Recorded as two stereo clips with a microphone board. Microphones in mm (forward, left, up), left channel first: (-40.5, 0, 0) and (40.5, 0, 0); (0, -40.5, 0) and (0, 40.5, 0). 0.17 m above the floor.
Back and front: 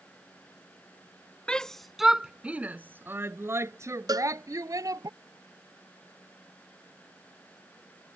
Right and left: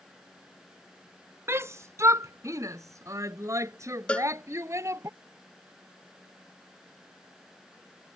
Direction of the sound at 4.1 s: 15° right.